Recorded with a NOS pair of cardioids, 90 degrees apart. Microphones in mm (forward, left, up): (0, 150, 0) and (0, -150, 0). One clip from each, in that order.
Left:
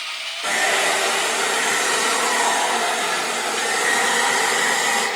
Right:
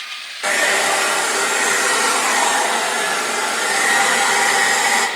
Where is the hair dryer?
45° right, 1.7 m.